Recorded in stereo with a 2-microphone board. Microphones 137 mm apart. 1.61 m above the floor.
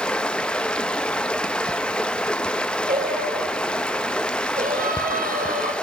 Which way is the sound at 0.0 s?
5° left (ahead or behind).